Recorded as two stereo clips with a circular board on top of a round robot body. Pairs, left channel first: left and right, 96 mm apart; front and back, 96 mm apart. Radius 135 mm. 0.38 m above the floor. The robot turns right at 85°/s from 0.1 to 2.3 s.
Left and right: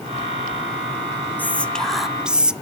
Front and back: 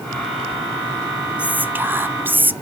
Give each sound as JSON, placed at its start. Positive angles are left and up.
{"t": 1.4, "sound": "whispering", "azimuth_deg": 125, "distance_m": 0.8}